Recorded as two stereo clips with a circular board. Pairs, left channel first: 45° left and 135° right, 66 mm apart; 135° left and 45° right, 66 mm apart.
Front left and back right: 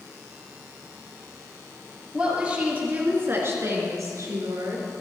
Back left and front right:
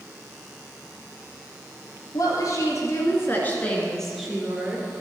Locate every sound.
2.1 s a woman speaking: 150° left, 3 m; by 4.9 s 110° right, 2.5 m